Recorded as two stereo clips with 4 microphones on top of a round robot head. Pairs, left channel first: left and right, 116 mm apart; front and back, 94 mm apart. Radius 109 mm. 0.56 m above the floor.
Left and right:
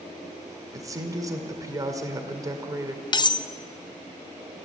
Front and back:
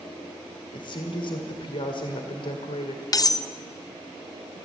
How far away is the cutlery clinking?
About 0.5 m.